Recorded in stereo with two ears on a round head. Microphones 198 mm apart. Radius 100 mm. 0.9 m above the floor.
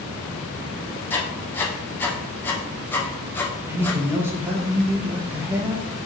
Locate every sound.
1.1 s writing: 10° left (ahead or behind), 0.8 m
3.7 s a man speaking: 10° right (ahead or behind), 0.9 m